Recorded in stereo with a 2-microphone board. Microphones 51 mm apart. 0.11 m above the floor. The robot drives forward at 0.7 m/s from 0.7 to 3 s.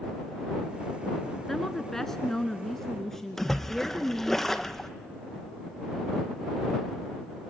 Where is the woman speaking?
10° left (ahead or behind), 1.1 m.